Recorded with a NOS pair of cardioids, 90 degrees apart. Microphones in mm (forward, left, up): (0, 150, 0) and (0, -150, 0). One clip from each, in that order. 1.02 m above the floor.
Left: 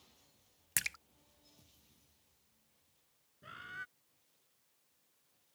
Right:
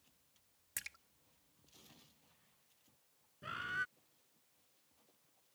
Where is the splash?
55° left.